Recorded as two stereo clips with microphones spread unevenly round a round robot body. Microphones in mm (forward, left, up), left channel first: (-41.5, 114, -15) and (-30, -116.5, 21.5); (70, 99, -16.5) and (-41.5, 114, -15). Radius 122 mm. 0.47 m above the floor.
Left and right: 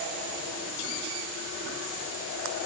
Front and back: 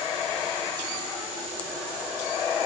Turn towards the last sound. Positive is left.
No sound to turn to.